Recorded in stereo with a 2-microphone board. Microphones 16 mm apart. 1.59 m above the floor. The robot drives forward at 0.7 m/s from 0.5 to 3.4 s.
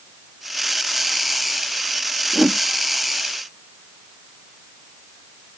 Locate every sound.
2.3 s a whoosh: 45° right (ahead or behind)